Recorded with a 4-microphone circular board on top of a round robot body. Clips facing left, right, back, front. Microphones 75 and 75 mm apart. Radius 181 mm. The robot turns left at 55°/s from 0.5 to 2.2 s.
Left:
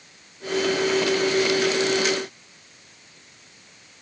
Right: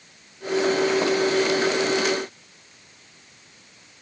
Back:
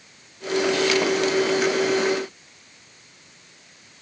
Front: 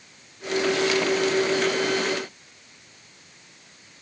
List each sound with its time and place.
Only background noise.